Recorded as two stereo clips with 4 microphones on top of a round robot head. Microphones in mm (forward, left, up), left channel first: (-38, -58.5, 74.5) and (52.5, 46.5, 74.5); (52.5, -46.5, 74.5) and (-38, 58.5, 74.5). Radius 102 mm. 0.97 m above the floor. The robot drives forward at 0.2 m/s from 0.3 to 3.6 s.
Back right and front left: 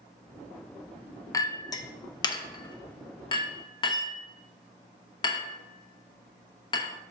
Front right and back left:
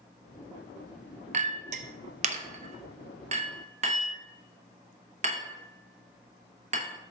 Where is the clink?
165° left, 0.5 m; by 6.9 s 170° left, 0.9 m.